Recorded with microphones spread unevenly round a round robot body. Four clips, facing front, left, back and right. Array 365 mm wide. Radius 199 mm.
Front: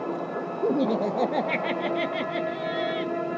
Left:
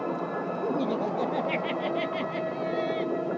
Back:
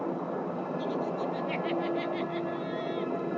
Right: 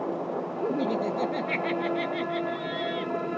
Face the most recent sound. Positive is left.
turn(degrees=15)